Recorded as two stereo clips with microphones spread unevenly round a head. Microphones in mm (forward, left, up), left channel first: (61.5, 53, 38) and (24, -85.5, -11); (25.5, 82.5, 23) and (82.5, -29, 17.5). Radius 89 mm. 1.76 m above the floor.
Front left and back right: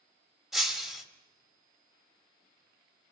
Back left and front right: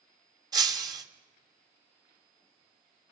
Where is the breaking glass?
5° right, 3 m.